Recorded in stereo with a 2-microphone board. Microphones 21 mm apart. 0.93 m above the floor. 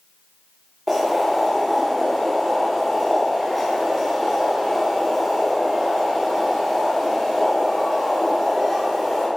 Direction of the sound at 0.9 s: 10° right (ahead or behind).